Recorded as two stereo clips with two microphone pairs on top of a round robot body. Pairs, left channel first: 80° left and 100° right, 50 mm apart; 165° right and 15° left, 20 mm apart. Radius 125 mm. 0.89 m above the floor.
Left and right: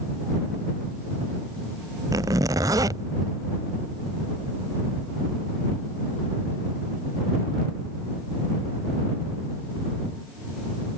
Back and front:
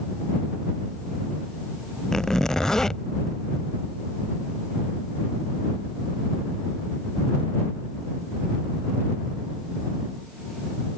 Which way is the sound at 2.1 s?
100° right.